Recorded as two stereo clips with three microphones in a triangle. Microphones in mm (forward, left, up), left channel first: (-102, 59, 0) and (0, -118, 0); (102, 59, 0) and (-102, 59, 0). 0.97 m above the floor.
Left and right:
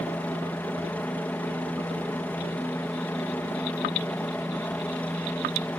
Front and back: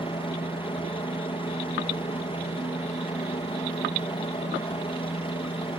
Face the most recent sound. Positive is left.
turn(degrees=40)